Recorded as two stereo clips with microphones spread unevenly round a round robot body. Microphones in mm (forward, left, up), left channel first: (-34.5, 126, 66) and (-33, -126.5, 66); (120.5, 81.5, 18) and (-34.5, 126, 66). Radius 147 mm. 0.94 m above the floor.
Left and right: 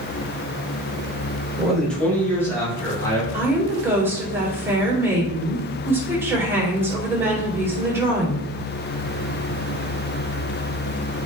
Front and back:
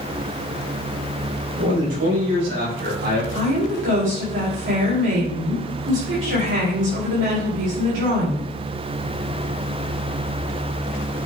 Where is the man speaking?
Straight behind, 3 m; by 3.2 s 165° left, 5 m.